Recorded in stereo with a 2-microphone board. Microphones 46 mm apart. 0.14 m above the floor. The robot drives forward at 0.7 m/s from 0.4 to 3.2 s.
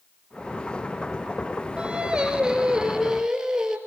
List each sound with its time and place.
1.8 s singing: 25° right (ahead or behind), 1.6 m; by 3.8 s 15° right (ahead or behind), 2.5 m